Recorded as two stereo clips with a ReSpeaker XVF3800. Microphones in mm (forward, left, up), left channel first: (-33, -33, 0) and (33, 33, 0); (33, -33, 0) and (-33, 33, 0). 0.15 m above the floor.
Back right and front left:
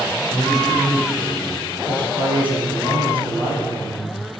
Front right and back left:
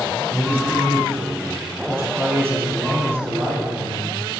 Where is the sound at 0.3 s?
125° left, 1.5 m.